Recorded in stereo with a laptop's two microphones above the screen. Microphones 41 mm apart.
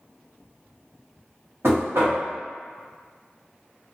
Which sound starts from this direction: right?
Knocking, at 1.6 s.